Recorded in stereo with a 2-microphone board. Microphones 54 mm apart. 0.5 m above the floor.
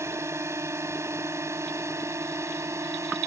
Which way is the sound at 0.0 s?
60° right (ahead or behind).